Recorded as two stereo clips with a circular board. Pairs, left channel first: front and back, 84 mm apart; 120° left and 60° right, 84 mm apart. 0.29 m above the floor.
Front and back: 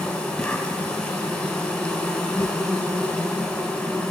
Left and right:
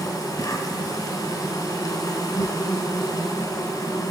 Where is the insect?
80° left, 1.3 m.